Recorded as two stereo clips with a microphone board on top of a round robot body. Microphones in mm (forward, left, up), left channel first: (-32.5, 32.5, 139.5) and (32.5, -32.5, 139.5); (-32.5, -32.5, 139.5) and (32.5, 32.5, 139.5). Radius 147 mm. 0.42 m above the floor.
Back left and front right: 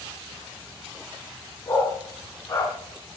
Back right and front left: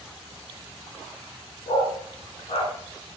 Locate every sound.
1.7 s a dog barking: 165° right, 1.6 m